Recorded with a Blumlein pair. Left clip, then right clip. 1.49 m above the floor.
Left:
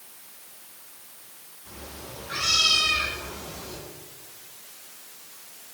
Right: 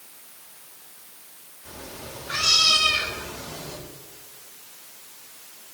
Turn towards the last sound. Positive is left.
turn(degrees=-65)